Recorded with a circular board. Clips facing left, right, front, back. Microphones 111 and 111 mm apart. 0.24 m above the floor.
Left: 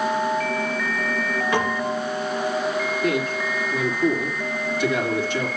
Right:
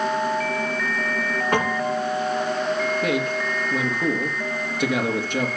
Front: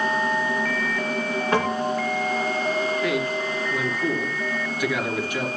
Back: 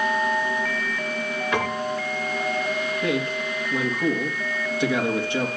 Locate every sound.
1.5 s a piano: 55° right, 2.5 m
3.0 s a man speaking: 120° right, 4.5 m